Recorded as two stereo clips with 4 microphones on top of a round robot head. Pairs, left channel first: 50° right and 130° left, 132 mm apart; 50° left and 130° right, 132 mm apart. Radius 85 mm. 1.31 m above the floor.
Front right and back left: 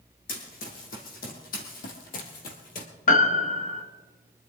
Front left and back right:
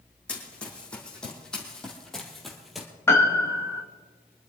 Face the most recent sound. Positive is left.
turn(degrees=-20)